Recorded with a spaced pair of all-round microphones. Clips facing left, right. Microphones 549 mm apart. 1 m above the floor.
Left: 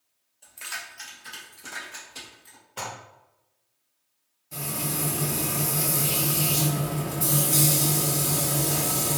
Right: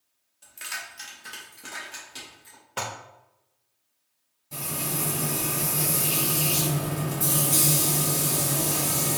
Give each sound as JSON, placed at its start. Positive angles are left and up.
{"t": 0.4, "sound": "keys jangling", "side_deg": -30, "distance_m": 0.6}
{"t": 2.8, "sound": "dishes clattering", "side_deg": -80, "distance_m": 0.5}
{"t": 4.5, "sound": "frying", "side_deg": -55, "distance_m": 1.7}